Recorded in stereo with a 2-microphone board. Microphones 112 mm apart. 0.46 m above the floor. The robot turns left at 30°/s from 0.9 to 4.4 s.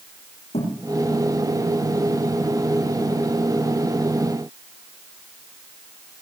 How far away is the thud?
About 9 m.